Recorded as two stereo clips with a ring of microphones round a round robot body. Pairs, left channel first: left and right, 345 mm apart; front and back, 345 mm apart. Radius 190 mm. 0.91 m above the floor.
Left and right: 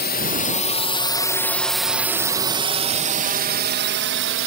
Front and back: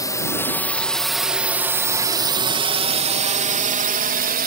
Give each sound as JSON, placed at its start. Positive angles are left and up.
{"t": 0.0, "sound": "a drone", "azimuth_deg": 70}